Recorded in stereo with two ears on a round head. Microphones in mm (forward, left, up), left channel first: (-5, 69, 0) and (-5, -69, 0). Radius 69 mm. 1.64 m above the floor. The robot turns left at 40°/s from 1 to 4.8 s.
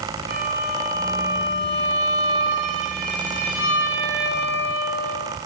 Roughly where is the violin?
Ahead right.